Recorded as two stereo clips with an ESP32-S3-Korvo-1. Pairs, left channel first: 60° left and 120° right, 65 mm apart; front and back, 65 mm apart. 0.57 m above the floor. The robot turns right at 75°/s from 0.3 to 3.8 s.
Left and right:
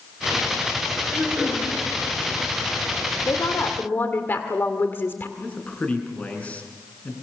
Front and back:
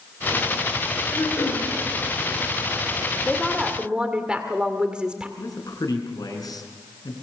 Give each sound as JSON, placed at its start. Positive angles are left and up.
{"t": 1.1, "sound": "throat clearing", "azimuth_deg": -65, "distance_m": 9.5}
{"t": 3.3, "sound": "a woman speaking", "azimuth_deg": 70, "distance_m": 1.8}
{"t": 5.4, "sound": "a man speaking", "azimuth_deg": -10, "distance_m": 6.5}